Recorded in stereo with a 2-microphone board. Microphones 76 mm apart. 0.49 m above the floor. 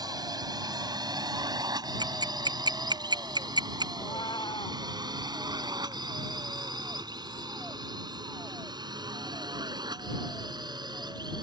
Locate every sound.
0.0 s a drone: 60° right (ahead or behind); by 11.4 s 70° right (ahead or behind)
2.0 s ticking: 70° right (ahead or behind)
4.0 s a cat meowing: 80° left